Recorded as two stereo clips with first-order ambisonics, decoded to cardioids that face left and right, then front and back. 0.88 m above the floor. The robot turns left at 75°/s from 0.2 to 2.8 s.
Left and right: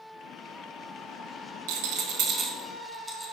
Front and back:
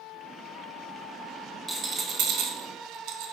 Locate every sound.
1.7 s a rattle: 100° right, 1.4 m; by 3.3 s 175° left, 1.4 m